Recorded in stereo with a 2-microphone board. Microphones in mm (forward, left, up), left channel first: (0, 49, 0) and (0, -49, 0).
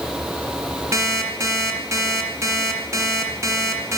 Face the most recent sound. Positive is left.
turn(degrees=-30)  # may be behind; listen again after turning